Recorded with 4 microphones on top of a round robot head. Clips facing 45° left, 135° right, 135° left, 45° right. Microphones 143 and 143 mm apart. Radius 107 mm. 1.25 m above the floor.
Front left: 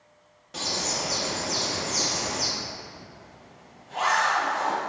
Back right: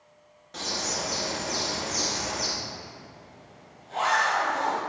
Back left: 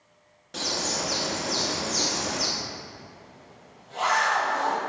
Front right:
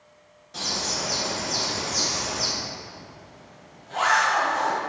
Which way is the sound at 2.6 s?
75° right.